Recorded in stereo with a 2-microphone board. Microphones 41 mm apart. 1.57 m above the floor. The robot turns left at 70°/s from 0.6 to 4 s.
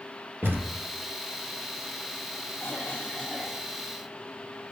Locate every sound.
0.4 s a thud: 65° right (ahead or behind), 2.5 m; by 0.8 s 55° right (ahead or behind), 2.5 m
2.6 s a cough: 65° left, 2.5 m; by 3.7 s 10° right, 2.5 m